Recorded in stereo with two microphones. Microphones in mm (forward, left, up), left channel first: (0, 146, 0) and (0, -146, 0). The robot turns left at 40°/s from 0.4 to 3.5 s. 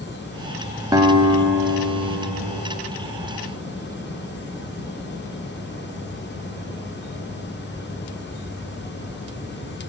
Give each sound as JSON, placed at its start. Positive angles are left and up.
{"t": 0.9, "sound": "a guitar", "azimuth_deg": -15, "distance_m": 0.6}